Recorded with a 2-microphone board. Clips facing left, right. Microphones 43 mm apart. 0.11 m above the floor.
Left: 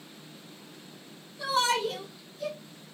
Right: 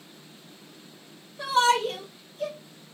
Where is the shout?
60° right (ahead or behind), 2.5 m.